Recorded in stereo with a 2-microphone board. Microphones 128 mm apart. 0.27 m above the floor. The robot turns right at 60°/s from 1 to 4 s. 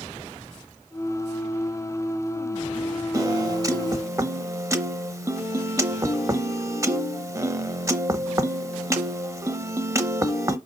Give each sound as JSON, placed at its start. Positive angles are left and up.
{"t": 3.1, "sound": "a piano", "side_deg": -25, "distance_m": 0.7}